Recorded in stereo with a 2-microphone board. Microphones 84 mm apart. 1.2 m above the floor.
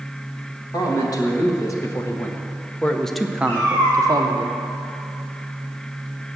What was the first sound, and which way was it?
A man speaking, 50° left (ahead or behind).